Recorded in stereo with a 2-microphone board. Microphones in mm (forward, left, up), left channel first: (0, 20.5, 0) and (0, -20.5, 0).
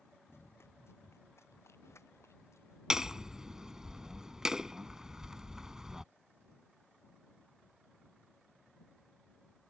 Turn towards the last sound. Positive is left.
turn(degrees=-10)  # may be behind; listen again after turning